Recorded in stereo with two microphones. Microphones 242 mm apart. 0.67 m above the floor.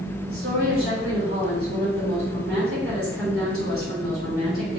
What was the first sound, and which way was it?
A woman speaking, 65° right (ahead or behind).